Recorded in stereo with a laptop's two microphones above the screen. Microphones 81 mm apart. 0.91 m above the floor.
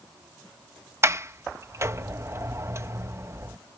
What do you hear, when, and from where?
1.0 s a sliding door: 35° right (ahead or behind)